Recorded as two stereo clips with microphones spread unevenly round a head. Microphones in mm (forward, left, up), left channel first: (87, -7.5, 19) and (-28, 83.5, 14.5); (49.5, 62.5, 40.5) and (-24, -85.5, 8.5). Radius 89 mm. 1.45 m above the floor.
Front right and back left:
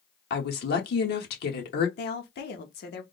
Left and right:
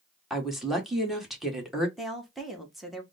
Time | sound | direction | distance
0.3 | a woman speaking | 30° right | 1.4 m
2.0 | a woman speaking | 25° right | 1.2 m